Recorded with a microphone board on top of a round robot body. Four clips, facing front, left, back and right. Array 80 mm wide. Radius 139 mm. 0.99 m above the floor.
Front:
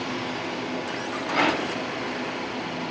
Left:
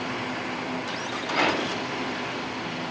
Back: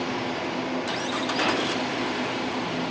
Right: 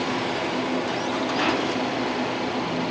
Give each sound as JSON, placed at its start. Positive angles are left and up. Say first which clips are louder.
{"t": 1.3, "sound": "a rattle", "louder": "left 1 dB, front 3 dB", "azimuth_deg": 20, "distance_m": 1.8}